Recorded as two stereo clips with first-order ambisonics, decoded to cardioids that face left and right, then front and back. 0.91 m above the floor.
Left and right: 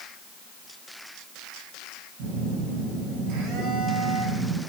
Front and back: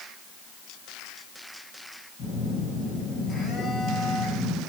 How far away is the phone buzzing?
About 7 m.